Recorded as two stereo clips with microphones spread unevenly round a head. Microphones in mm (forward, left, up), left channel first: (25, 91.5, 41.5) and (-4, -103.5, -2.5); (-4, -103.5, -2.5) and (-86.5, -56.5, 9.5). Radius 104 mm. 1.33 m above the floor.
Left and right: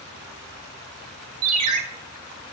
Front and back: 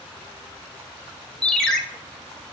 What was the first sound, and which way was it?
A ringtone, 115° right.